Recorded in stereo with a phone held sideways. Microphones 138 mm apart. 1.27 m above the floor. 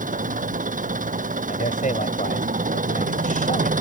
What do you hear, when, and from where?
0.0 s an engine running: 70° right (ahead or behind)
1.5 s a man speaking: 70° left (ahead or behind)